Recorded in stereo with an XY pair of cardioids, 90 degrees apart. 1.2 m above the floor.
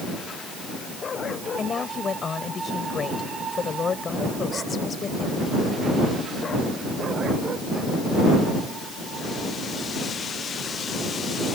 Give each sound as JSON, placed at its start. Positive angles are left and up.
{"t": 1.6, "sound": "a woman speaking", "azimuth_deg": 50}